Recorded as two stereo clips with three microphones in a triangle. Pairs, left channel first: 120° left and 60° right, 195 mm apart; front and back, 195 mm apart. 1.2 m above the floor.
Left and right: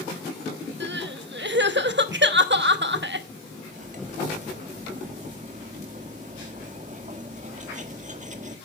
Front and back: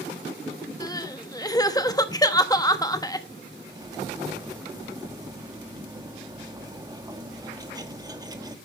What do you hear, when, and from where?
0.8 s crying: 70° right, 1.0 m
3.7 s cutlery clinking: 110° right, 1.5 m